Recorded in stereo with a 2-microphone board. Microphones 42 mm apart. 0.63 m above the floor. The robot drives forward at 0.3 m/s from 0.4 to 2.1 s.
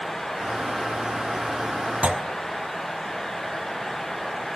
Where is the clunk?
30° right (ahead or behind), 1.3 m.